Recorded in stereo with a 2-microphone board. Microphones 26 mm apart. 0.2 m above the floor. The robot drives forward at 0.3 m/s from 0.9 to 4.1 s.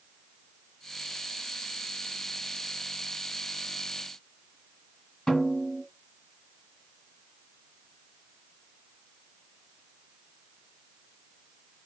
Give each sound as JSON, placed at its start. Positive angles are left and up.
{"t": 5.3, "sound": "a snare drum", "side_deg": 30, "distance_m": 1.6}